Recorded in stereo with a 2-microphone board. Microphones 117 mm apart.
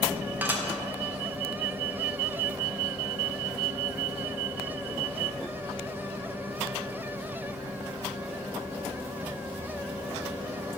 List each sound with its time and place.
0.4 s dishes clattering: 15° right (ahead or behind), 0.7 m